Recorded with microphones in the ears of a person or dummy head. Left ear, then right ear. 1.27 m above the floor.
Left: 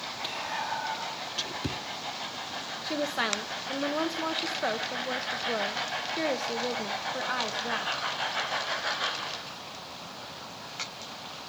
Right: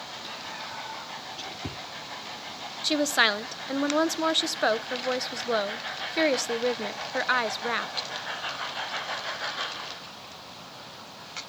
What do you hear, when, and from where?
0.2 s whispering: 30° left (ahead or behind), 0.7 m
2.8 s a woman speaking: 65° right (ahead or behind), 0.5 m